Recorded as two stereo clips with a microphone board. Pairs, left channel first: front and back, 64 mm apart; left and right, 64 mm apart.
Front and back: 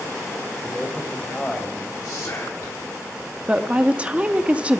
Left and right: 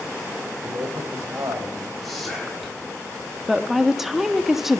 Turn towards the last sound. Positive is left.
turn(degrees=-165)